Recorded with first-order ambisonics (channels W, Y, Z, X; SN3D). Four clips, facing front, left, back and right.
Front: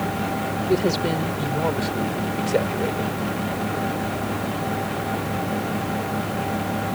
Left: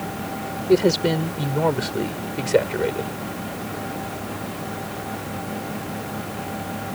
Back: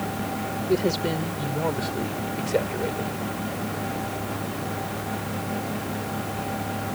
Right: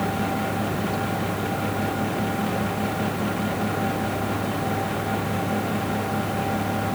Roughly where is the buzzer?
No buzzer in this recording.